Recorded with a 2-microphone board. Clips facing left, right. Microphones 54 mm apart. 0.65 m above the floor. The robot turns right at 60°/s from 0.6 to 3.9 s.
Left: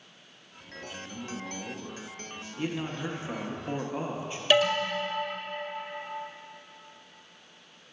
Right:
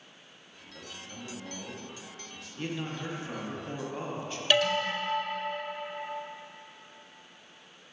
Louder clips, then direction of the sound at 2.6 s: Left 3 dB; 10° left (ahead or behind).